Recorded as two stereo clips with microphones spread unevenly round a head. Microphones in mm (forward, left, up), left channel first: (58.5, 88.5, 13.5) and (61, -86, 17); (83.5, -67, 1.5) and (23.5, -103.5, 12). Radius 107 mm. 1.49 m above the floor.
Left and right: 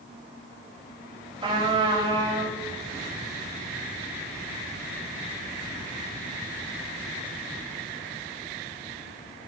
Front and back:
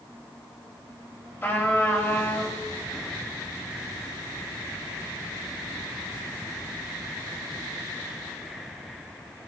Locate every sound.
1.4 s a trumpet: 30° right, 4 m